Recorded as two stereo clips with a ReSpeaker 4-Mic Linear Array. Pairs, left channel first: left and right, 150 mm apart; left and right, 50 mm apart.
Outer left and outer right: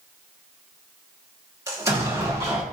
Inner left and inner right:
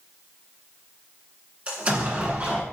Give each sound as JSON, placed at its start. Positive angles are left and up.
{"t": 1.7, "sound": "an explosion", "side_deg": -20, "distance_m": 1.3}